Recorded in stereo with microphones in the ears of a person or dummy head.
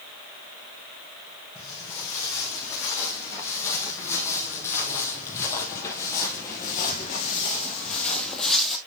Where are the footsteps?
15° left (ahead or behind), 3.5 m; by 8.8 s 5° left (ahead or behind), 1.7 m.